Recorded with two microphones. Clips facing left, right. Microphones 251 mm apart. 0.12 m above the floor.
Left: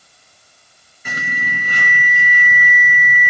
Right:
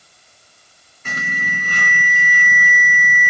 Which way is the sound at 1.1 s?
10° left (ahead or behind).